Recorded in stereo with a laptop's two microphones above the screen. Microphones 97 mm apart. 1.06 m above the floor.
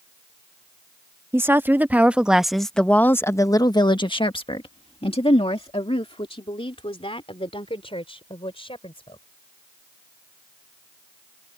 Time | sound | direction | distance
1.3 | a woman speaking | 25° right (ahead or behind) | ?